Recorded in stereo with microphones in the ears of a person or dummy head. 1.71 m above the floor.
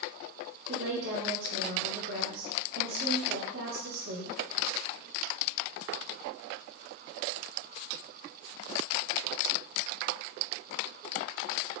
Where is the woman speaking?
60° right (ahead or behind), 4.5 m.